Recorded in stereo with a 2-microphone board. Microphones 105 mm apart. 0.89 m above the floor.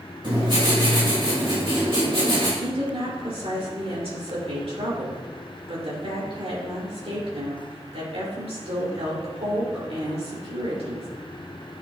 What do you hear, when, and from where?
0.2 s writing: 55° right (ahead or behind), 3 m
2.6 s a woman speaking: 70° right (ahead or behind), 3 m